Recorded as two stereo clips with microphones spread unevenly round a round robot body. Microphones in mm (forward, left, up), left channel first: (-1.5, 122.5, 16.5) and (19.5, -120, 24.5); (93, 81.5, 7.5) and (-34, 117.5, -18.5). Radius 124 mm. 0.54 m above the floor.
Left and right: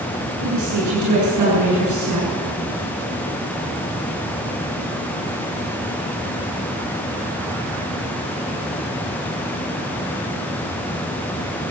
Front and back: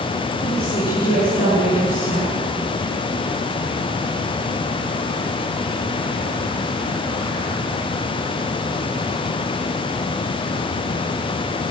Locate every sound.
0.4 s a woman speaking: 70° right, 8.5 m